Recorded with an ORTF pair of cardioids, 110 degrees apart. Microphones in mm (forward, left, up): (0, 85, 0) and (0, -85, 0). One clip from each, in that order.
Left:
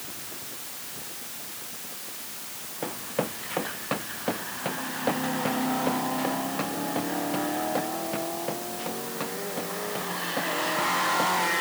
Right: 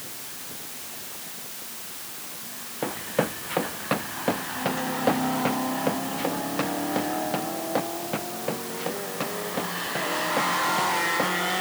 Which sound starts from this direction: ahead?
Running footsteps, at 2.8 s.